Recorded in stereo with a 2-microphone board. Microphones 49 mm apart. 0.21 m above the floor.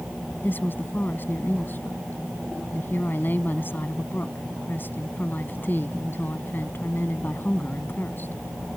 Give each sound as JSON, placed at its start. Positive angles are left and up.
{"t": 0.4, "sound": "a woman speaking", "side_deg": 45}